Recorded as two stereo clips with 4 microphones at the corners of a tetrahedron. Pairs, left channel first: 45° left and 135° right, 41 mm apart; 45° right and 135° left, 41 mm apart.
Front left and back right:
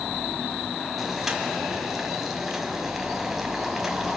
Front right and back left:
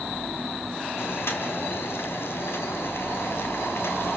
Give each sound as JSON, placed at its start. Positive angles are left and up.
{"t": 1.0, "sound": "boiling", "azimuth_deg": -50, "distance_m": 3.0}